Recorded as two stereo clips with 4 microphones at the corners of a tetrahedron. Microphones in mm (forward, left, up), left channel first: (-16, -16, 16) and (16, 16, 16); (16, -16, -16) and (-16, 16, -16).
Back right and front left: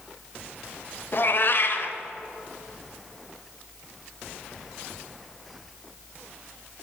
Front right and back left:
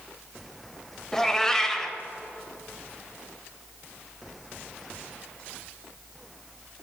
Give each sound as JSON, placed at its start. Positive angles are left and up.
{"t": 1.1, "sound": "a cat meowing", "azimuth_deg": -120, "distance_m": 0.8}